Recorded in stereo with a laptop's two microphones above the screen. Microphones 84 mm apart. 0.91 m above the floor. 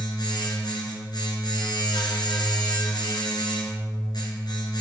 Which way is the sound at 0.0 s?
65° left (ahead or behind).